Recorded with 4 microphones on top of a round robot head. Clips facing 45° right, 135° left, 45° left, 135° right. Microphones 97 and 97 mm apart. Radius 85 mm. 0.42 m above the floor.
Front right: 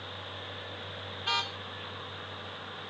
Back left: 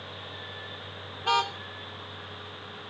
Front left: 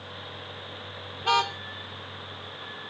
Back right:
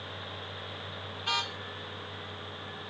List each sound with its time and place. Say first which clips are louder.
1.2 s a car horn: back left 9 dB, front left 11 dB; 85° left